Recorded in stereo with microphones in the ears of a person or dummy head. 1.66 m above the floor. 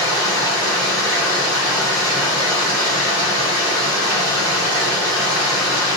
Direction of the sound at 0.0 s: 15° right (ahead or behind).